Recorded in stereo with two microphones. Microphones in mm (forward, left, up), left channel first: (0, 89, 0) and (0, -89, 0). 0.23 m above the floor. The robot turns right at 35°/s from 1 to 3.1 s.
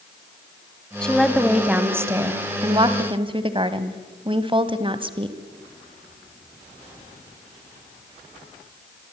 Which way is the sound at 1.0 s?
170° left.